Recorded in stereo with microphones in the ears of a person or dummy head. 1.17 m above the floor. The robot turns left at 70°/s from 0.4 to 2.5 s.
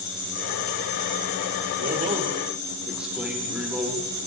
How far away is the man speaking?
About 2.5 m.